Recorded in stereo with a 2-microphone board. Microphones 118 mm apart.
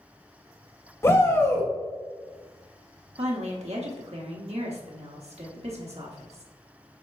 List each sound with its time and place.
1.0 s a shout: 25° left (ahead or behind), 1.3 m
3.2 s a woman speaking: 70° right (ahead or behind), 1.2 m